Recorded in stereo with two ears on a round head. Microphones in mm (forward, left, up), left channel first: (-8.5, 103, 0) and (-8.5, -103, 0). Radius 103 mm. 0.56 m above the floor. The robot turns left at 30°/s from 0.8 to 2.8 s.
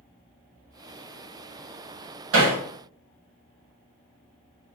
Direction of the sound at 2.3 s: 65° right (ahead or behind).